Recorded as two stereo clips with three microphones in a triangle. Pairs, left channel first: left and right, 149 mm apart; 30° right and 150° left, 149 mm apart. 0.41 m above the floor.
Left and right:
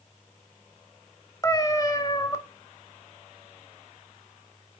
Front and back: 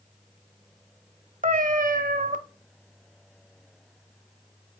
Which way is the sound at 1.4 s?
155° left.